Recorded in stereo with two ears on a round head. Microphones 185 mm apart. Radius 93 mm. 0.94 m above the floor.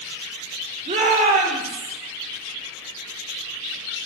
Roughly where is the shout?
Right.